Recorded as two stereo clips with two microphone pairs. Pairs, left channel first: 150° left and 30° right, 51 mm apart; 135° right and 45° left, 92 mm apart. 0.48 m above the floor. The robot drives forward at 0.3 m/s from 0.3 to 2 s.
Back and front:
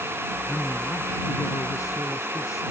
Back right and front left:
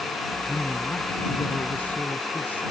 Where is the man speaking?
150° left; by 2.6 s 155° left.